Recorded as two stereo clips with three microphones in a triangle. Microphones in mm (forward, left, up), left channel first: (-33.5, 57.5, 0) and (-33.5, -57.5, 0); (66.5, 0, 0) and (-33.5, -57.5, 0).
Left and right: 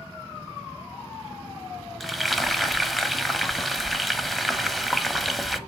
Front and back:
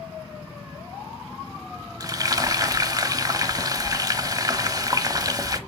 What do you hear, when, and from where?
2.0 s frying: straight behind, 0.9 m